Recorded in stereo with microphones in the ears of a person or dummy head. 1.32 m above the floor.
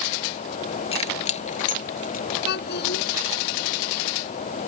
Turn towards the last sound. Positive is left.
turn(degrees=60)  # may be behind; listen again after turning